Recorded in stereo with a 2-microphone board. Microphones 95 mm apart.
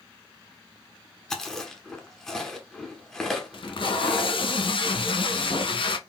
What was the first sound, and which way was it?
Chewing, 5° left (ahead or behind).